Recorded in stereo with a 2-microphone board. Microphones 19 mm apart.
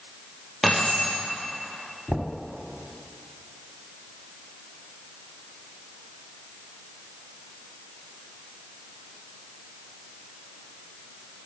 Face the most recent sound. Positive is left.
turn(degrees=35)  # may be behind; listen again after turning